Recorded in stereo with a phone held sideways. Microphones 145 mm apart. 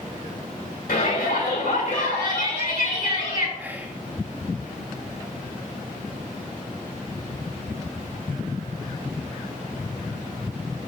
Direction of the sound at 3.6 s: 15° right (ahead or behind).